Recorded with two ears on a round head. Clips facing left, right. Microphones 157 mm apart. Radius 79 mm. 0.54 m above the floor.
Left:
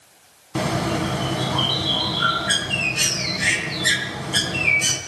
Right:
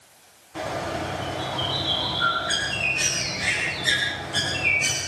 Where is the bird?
80° left, 4 m.